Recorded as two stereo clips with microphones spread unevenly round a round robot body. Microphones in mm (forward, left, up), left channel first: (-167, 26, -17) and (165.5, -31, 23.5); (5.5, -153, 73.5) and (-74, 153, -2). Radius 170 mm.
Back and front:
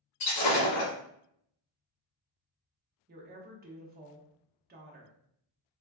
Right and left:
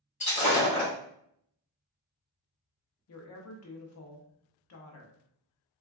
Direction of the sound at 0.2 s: 145° right.